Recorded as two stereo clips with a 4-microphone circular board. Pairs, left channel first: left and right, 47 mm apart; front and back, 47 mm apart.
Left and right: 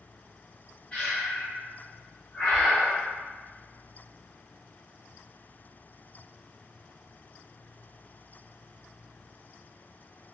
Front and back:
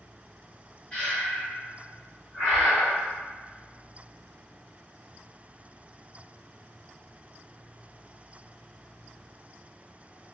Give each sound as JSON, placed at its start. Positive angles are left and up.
{"t": 0.9, "sound": "breathing", "azimuth_deg": 45, "distance_m": 1.0}